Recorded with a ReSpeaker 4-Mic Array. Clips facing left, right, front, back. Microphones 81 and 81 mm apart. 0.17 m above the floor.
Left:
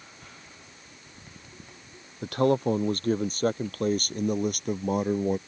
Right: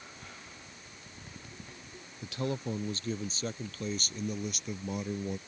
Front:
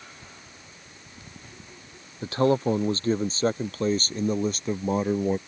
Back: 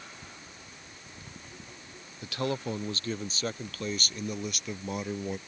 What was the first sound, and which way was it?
A man speaking, 55° left.